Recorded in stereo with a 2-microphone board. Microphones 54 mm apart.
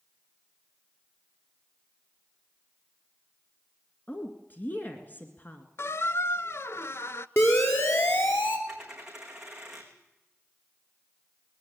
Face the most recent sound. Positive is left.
turn(degrees=-10)  # may be behind; listen again after turning